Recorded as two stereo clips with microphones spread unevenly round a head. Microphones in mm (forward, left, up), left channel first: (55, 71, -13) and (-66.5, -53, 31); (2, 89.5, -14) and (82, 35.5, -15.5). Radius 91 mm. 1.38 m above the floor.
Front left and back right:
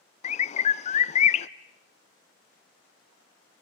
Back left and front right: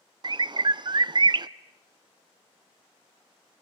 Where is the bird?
5° left, 0.6 m.